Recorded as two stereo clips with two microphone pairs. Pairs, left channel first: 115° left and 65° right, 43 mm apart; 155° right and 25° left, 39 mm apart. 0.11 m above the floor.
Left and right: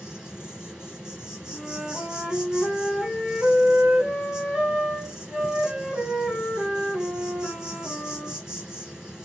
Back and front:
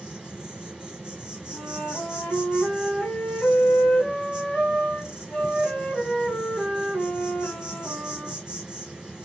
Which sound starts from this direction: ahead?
An insect, at 0.0 s.